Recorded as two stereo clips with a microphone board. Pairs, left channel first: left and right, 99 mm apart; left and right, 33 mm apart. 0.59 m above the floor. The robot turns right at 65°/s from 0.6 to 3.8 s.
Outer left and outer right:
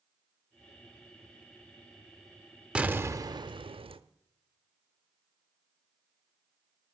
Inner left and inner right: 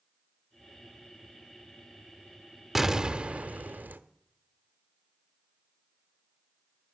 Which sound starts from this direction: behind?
An explosion, at 2.8 s.